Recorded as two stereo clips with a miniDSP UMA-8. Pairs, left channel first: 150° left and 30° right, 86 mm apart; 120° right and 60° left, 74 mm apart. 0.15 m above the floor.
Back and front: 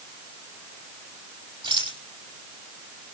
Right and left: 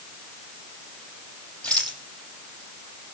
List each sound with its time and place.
1.6 s a rattle: 45° right, 6 m